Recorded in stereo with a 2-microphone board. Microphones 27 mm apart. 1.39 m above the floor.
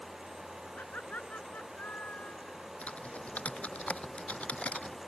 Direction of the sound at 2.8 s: 50° left (ahead or behind).